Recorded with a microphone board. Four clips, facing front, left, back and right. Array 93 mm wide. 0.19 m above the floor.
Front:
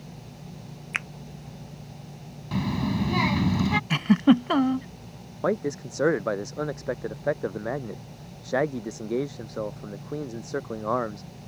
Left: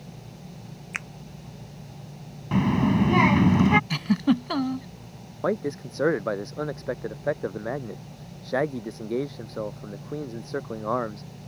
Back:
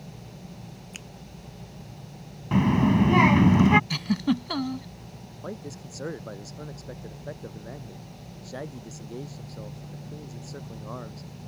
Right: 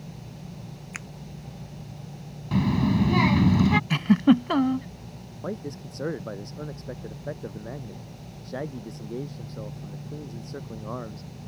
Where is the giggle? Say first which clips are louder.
Right 4 dB, front 7 dB; 25° right.